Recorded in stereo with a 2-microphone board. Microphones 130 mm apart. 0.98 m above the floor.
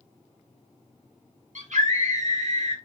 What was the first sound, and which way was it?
A scream, 70° right (ahead or behind).